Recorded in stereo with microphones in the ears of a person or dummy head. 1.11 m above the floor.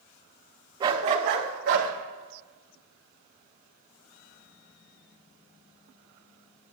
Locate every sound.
0.8 s a dog barking: 25° right (ahead or behind), 1.0 m; by 1.9 s 75° right (ahead or behind), 1.8 m